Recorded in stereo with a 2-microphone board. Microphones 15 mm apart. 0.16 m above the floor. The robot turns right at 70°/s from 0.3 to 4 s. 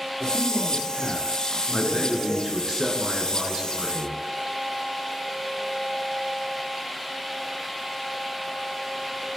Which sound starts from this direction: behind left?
A man speaking, at 1.7 s.